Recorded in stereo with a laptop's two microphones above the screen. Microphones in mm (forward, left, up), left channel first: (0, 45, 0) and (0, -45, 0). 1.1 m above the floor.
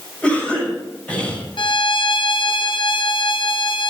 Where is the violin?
60° left (ahead or behind), 0.8 m.